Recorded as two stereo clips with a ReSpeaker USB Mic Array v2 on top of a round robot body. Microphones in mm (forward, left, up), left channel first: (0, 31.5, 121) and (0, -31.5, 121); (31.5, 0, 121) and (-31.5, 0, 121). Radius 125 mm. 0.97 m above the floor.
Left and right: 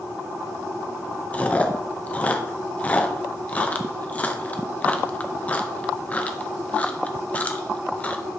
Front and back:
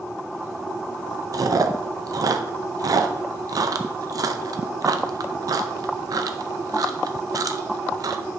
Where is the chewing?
155° left, 0.7 m.